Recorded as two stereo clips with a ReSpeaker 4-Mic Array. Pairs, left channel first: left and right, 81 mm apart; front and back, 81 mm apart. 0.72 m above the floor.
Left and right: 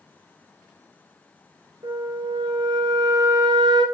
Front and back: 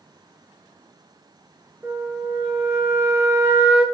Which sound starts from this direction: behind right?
A flute, at 1.8 s.